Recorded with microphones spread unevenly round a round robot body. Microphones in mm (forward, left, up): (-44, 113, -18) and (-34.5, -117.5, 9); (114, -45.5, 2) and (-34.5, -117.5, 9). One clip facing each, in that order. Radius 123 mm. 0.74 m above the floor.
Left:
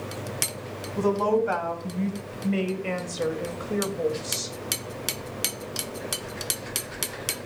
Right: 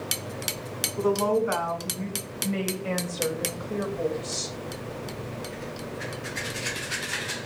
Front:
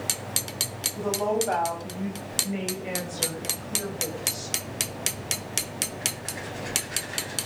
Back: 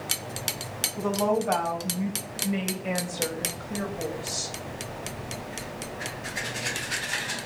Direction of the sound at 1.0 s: 120° left.